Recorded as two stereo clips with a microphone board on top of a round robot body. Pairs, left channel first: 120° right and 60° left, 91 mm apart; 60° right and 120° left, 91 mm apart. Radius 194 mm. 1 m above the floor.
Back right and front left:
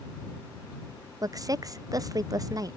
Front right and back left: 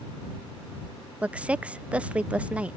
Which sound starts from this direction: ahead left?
A woman speaking, at 1.2 s.